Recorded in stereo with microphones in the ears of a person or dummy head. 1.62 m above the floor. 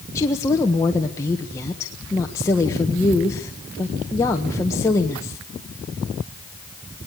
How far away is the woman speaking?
About 1.5 m.